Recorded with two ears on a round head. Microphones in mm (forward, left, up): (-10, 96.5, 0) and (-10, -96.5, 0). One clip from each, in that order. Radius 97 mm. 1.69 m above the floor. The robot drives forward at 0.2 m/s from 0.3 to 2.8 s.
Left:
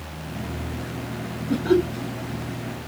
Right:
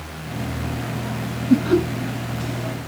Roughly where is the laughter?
Centre.